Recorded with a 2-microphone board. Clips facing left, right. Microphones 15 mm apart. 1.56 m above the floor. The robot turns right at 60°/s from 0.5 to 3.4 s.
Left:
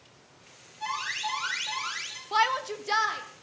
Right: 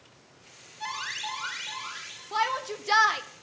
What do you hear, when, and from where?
0.8 s an alarm: 20° right, 7 m; by 2.2 s 65° left, 7 m
2.3 s a shout: 165° left, 1.2 m; by 3.2 s 140° right, 1.2 m